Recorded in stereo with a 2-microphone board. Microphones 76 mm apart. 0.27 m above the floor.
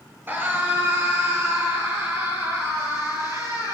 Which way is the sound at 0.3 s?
25° right (ahead or behind).